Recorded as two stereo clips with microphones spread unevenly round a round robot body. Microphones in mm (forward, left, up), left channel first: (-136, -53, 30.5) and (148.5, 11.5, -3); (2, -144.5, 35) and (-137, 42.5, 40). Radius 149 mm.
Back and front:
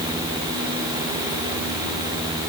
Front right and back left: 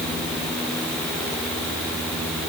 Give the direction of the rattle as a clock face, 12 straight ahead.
No rattle in this recording.